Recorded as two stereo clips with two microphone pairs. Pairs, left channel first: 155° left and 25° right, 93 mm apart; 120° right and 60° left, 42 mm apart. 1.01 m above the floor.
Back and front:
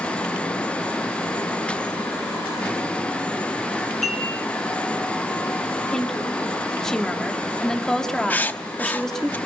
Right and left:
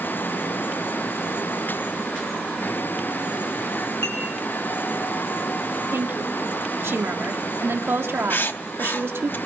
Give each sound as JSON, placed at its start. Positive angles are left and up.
{"t": 4.0, "sound": "dishes clattering", "azimuth_deg": -115, "distance_m": 7.5}
{"t": 5.9, "sound": "a woman speaking", "azimuth_deg": 70, "distance_m": 2.0}
{"t": 8.3, "sound": "writing", "azimuth_deg": -135, "distance_m": 0.6}